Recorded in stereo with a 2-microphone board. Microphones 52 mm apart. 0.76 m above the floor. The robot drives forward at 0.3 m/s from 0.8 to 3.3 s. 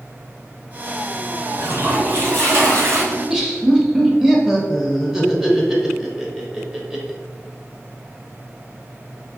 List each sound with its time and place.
1.5 s a toilet flushing: 50° right (ahead or behind), 1.4 m; by 3.0 s 55° right (ahead or behind), 1.4 m
3.1 s laughter: 10° right (ahead or behind), 0.7 m